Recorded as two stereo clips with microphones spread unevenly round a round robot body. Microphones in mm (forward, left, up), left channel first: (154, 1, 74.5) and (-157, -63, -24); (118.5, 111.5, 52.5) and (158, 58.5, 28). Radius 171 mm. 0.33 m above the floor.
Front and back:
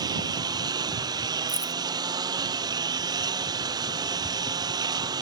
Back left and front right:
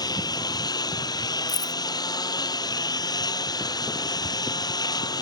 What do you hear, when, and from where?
0.0 s a lawn mower: 115° left
1.5 s keys jangling: 110° left